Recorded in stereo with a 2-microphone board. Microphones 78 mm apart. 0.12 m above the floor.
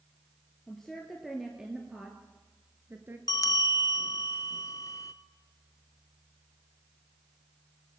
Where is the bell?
45° left (ahead or behind), 0.7 m.